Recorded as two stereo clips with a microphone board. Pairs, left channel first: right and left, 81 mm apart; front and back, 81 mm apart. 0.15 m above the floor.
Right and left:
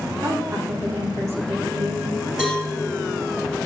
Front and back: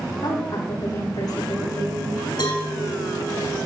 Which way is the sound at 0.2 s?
30° left.